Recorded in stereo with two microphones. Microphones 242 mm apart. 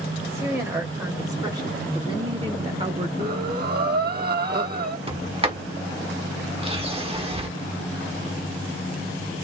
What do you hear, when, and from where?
0.2 s a woman speaking: 10° right (ahead or behind), 2.5 m; by 3.1 s 25° right (ahead or behind), 0.9 m
3.2 s breathing: 40° right (ahead or behind), 1.0 m
5.1 s a sliding door: 25° right (ahead or behind), 1.2 m